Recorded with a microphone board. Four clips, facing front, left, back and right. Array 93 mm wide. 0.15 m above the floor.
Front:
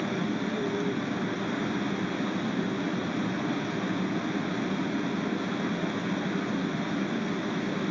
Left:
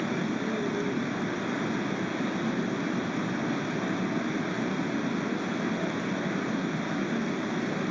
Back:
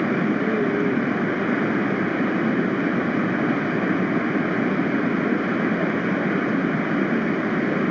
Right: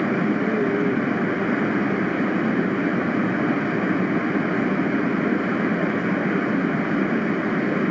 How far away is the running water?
About 1.1 m.